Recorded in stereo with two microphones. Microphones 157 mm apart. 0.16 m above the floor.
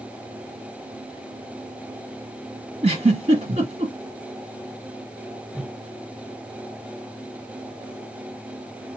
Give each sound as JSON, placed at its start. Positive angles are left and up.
{"t": 2.8, "sound": "a giggle", "side_deg": -35, "distance_m": 2.0}
{"t": 5.5, "sound": "a whoosh", "side_deg": 0, "distance_m": 1.8}